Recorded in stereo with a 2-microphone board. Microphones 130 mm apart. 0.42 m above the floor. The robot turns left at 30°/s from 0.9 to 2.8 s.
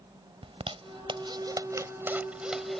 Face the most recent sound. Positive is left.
turn(degrees=0)  # may be behind; listen again after turning